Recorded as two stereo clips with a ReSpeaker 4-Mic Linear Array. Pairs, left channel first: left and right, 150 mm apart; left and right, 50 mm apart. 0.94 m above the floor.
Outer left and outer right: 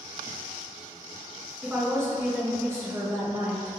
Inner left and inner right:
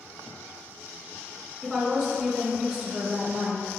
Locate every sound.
1.6 s a woman speaking: 20° right (ahead or behind), 1.2 m